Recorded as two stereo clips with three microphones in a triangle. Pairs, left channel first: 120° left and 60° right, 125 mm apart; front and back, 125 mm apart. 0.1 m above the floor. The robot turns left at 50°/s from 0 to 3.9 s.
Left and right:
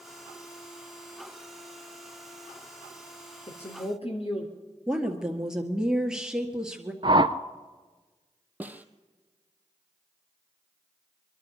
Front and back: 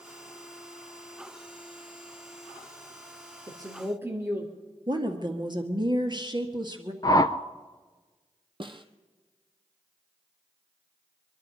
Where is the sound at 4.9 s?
145° right, 1.9 m.